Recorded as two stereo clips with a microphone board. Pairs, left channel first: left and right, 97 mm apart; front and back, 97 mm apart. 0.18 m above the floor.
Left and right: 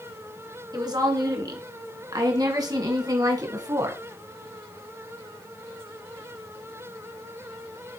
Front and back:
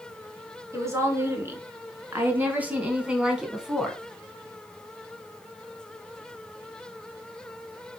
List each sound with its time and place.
0.7 s a woman speaking: 125° right, 3 m; by 4.0 s 95° right, 1.9 m